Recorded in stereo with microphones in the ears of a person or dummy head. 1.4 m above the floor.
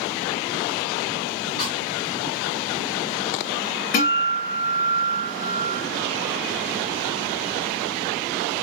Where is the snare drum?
30° left (ahead or behind), 2 m.